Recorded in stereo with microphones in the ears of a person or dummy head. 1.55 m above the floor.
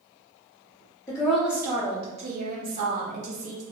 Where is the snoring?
I don't hear snoring.